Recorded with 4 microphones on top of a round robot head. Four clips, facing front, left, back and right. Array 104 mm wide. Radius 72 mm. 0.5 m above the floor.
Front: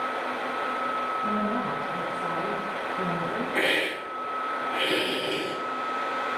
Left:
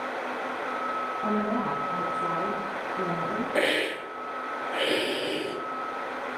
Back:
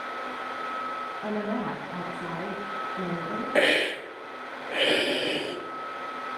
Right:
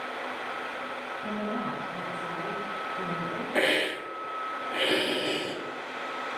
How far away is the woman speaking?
About 4 m.